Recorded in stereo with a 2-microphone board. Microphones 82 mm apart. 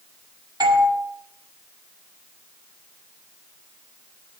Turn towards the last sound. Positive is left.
turn(degrees=-60)  # may be behind; listen again after turning